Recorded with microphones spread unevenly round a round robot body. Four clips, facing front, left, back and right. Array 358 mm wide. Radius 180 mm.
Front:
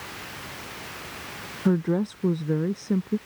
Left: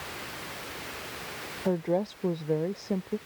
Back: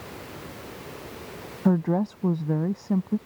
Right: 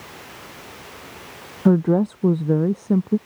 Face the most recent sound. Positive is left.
turn(degrees=-105)